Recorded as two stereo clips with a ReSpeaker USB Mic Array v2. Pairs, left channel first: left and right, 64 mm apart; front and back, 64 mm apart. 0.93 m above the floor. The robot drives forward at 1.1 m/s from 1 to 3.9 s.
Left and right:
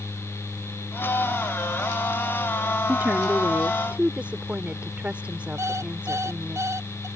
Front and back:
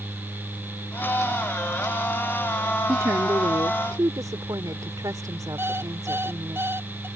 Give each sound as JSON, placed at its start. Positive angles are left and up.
{"t": 2.9, "sound": "a woman speaking", "azimuth_deg": -145}
{"t": 5.6, "sound": "an alarm clock", "azimuth_deg": -130}